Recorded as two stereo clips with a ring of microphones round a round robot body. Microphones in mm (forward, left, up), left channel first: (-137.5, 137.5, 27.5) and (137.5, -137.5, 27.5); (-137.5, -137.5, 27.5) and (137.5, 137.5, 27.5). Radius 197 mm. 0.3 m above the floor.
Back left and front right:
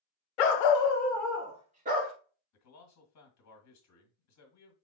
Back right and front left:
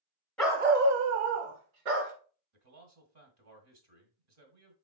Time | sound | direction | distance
0.4 | a dog barking | 140° left | 0.8 m
2.5 | a man speaking | 90° left | 1.6 m